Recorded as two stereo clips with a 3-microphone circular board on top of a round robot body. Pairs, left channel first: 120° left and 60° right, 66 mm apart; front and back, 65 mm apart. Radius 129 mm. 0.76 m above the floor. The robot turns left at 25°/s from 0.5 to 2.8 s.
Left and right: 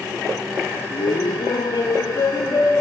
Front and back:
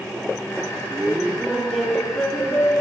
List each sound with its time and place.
0.9 s laughter: 115° left, 1.6 m; by 2.8 s 65° left, 1.6 m